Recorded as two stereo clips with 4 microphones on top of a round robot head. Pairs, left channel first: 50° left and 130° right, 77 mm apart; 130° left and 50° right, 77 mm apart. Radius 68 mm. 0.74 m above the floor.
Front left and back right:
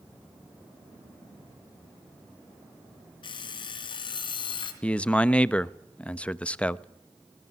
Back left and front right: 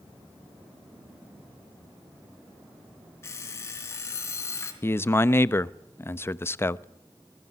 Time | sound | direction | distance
3.2 | an alarm clock | 70° left | 4 m
4.8 | a man speaking | 110° left | 1.0 m